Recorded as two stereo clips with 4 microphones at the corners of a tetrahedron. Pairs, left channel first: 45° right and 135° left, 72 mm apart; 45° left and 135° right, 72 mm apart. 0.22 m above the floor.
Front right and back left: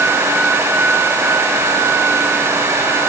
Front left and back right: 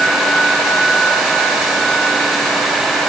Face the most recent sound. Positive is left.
No sound to turn to.